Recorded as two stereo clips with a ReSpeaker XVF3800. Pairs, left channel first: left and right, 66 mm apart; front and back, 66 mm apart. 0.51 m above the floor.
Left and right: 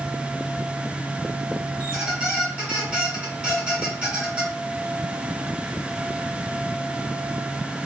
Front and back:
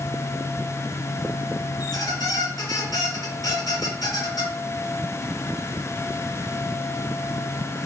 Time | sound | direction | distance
1.8 | a squeak | 20° right | 1.8 m